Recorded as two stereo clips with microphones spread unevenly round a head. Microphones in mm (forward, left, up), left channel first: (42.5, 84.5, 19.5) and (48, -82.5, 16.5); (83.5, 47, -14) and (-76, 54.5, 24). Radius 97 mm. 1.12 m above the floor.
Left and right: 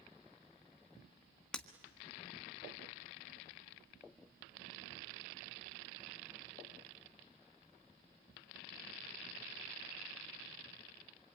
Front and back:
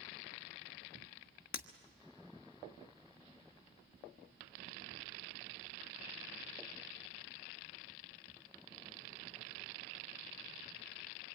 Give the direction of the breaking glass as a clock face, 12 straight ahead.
12 o'clock.